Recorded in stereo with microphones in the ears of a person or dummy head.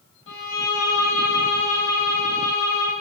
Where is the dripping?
No dripping in this recording.